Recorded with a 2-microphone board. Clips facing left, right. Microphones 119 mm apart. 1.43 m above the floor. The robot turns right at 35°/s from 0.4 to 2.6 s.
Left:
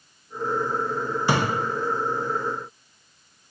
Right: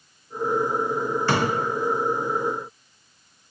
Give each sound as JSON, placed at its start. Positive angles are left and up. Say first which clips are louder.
{"t": 1.3, "sound": "a thud", "louder": "even", "side_deg": 15, "distance_m": 0.7}